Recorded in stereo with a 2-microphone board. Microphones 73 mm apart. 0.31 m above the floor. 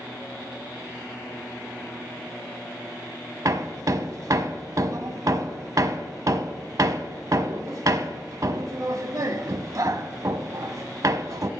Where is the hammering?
50° right (ahead or behind), 0.6 m.